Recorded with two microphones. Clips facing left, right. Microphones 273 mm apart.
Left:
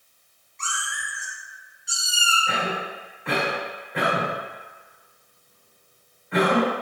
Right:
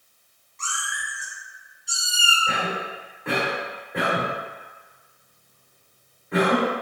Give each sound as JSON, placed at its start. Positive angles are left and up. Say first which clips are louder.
{"t": 0.6, "sound": "a cat meowing", "louder": "even", "side_deg": -50, "distance_m": 2.0}
{"t": 2.5, "sound": "a cough", "louder": "even", "side_deg": -50, "distance_m": 2.0}